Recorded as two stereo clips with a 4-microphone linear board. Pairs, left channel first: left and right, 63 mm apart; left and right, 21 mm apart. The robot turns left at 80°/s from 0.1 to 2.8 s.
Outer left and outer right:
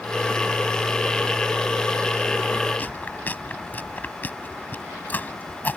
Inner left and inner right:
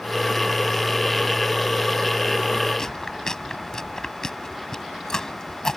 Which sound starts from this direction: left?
Chewing, at 2.8 s.